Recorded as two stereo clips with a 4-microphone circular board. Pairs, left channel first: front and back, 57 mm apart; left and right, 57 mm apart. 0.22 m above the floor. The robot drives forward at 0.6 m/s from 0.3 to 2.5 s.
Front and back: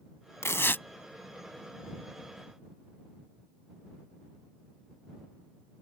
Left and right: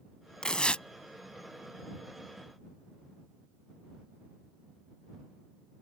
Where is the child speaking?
I don't hear a child speaking.